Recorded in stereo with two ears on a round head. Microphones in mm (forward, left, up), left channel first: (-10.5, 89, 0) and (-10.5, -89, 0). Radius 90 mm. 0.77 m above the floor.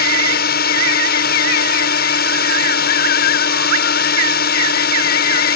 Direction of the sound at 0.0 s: 50° left (ahead or behind).